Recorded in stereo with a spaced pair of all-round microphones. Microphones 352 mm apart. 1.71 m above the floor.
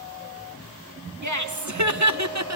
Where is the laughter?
55° right (ahead or behind), 2.5 m; by 2.6 s 45° right (ahead or behind), 1.2 m.